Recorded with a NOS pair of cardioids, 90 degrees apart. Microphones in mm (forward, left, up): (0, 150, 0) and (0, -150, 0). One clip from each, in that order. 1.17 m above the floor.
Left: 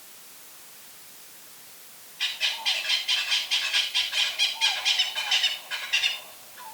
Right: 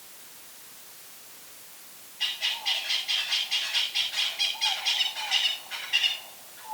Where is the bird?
40° left, 7 m.